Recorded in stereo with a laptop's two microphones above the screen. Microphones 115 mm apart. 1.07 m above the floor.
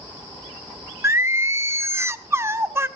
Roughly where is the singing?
Right.